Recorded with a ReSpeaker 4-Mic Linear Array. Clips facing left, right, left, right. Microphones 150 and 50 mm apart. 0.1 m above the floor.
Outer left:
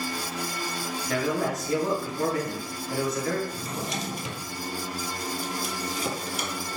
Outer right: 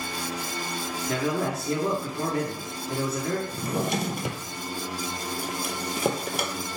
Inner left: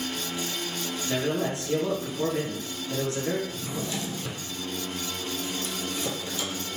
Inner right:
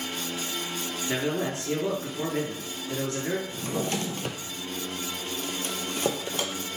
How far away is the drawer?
About 0.6 m.